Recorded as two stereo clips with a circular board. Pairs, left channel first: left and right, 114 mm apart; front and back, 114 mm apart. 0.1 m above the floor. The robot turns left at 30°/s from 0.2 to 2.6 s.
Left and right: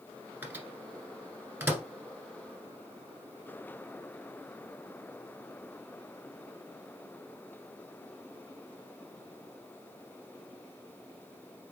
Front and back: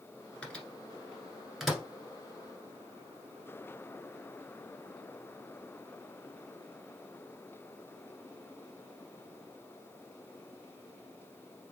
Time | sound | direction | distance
0.4 | a microwave | 60° right | 1.2 m